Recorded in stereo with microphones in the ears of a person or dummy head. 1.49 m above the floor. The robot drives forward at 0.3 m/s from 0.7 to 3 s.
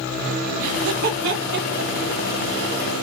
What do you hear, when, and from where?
0.6 s laughter: 45° right (ahead or behind), 1.0 m; by 2.7 s 60° right (ahead or behind), 0.8 m